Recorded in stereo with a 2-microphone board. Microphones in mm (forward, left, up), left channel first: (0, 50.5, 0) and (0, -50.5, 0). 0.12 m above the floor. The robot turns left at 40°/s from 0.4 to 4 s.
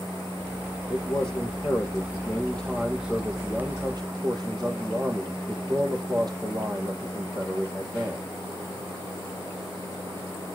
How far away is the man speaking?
About 3.5 m.